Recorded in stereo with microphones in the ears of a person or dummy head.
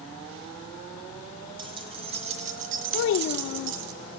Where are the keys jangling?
30° right (ahead or behind), 2.5 m; by 3.9 s 80° right, 1.3 m.